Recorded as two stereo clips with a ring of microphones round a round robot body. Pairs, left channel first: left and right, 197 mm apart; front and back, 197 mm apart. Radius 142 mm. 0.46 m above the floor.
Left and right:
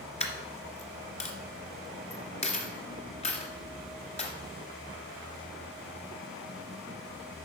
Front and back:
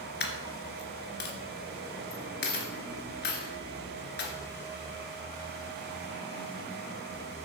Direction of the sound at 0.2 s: 35° left.